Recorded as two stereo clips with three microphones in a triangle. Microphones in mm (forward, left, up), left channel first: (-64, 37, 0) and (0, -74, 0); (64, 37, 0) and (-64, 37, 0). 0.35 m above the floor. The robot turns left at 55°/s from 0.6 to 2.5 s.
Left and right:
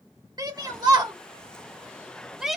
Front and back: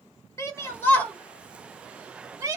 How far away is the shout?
About 0.9 m.